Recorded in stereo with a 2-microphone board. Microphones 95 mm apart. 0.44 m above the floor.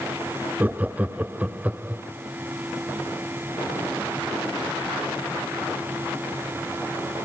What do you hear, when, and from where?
0.6 s laughter: 15° right (ahead or behind), 0.7 m